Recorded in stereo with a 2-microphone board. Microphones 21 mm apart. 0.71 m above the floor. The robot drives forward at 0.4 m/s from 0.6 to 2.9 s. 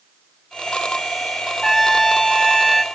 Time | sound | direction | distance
1.6 | a trumpet | centre (ahead or behind) | 2 m